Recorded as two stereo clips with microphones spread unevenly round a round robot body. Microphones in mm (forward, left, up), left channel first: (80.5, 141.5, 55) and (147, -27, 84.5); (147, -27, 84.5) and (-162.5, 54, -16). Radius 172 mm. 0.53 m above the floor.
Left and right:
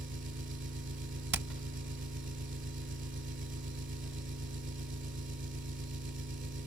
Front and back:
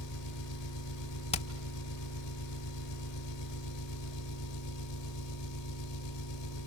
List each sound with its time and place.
0.0 s an engine running: 55° right, 3 m
1.3 s hammering: 95° right, 1.3 m